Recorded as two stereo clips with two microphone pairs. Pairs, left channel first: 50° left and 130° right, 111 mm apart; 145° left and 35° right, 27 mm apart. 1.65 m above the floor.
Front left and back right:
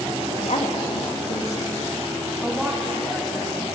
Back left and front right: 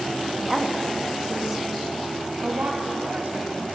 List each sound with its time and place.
0.4 s a woman speaking: 45° left, 3 m
2.4 s a woman speaking: 35° right, 3 m